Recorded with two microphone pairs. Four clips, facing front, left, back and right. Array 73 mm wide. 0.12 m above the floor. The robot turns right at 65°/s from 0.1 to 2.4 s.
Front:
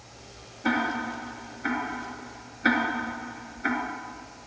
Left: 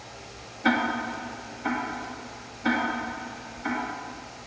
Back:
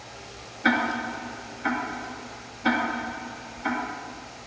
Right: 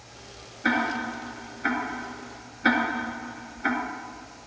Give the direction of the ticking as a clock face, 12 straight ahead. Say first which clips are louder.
Left 1 dB, back 3 dB; 5 o'clock.